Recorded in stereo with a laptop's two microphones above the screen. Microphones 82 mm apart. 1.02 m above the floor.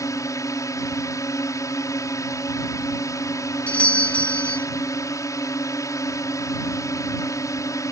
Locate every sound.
0.0 s a drone: 40° left (ahead or behind)
3.7 s a doorbell: 15° left (ahead or behind)